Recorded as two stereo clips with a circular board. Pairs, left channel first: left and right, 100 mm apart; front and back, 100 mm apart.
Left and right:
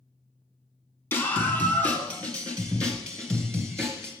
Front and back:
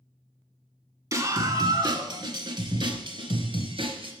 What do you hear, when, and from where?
1.1 s a scream: 145° left, 1.5 m; by 4.1 s 175° left, 3 m